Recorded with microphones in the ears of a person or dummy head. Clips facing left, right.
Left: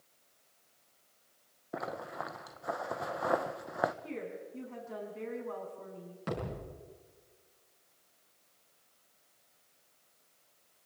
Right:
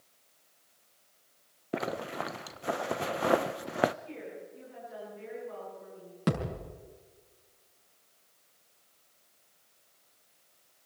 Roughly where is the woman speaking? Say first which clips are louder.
Left 2 dB; left.